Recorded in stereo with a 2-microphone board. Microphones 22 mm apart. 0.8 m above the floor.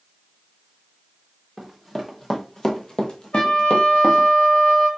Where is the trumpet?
60° left (ahead or behind), 1.7 m.